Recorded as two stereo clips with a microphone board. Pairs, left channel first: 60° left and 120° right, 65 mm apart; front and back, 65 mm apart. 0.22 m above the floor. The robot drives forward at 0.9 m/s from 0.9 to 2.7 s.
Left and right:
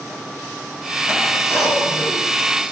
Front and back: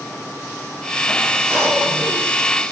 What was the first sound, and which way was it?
A cough, 140° right.